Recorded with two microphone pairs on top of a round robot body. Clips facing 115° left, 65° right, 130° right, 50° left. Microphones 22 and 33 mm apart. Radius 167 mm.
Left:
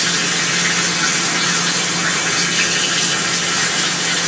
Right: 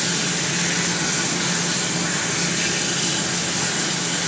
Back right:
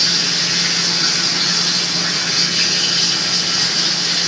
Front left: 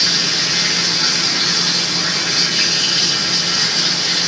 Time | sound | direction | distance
0.0 | running water | 145° left | 8.5 m